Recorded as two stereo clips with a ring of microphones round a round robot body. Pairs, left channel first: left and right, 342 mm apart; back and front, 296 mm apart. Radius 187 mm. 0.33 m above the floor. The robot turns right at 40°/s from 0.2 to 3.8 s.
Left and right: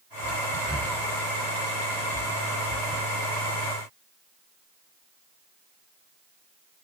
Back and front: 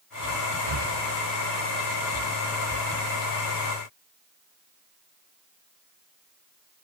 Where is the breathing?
5° right, 1.3 m; by 0.9 s 10° left, 1.3 m.